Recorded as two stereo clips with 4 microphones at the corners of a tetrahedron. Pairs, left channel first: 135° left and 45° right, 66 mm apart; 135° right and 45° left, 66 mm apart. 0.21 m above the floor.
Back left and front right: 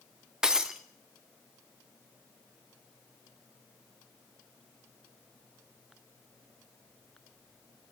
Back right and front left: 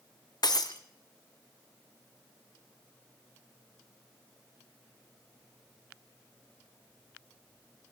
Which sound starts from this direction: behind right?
Breaking glass, at 0.4 s.